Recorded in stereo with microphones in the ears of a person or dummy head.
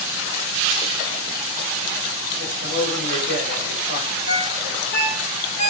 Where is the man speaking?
60° left (ahead or behind), 6.5 m.